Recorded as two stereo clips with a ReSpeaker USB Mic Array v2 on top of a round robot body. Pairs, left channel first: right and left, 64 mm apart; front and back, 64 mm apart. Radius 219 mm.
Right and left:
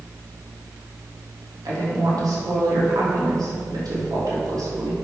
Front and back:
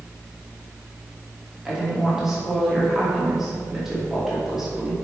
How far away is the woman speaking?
About 3 m.